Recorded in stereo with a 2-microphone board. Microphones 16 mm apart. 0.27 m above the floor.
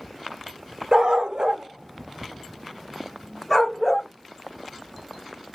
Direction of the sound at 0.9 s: 60° right (ahead or behind).